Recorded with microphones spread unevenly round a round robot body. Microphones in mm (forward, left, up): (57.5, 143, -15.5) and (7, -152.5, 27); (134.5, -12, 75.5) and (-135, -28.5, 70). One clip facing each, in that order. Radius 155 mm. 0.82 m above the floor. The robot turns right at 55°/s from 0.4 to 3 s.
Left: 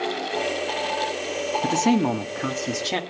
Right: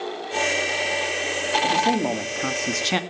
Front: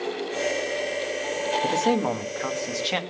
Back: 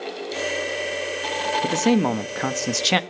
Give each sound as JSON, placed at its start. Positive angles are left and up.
{"t": 1.6, "sound": "a man speaking", "azimuth_deg": 120, "distance_m": 1.2}